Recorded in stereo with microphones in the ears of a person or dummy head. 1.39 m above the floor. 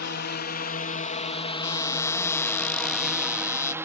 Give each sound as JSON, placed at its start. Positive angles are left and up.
{"t": 0.0, "sound": "a drone", "side_deg": 60}
{"t": 1.6, "sound": "a cupboard door", "side_deg": 15}